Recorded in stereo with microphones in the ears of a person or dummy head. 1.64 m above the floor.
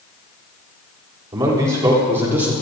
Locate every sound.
1.3 s a man speaking: 25° right (ahead or behind), 4 m; by 2.5 s 15° right (ahead or behind), 3.5 m